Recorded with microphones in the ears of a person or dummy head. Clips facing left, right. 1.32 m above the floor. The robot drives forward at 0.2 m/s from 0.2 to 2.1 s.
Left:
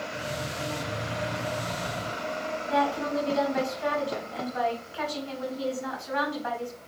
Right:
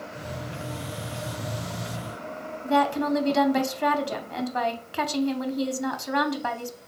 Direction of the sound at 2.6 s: 65° right (ahead or behind).